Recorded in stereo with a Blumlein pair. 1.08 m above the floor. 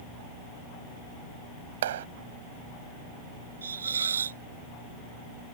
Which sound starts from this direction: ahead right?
A clap, at 1.8 s.